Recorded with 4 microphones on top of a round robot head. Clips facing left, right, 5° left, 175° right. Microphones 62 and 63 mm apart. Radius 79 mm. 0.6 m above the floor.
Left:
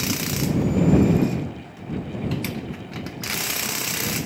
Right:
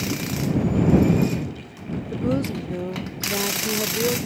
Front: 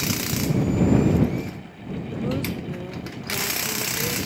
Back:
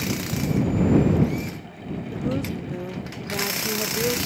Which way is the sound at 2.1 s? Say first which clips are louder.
Right 7 dB, even; 85° right.